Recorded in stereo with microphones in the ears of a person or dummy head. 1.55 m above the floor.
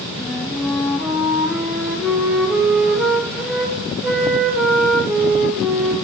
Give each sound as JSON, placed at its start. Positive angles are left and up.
{"t": 0.2, "sound": "a flute", "side_deg": -5, "distance_m": 0.9}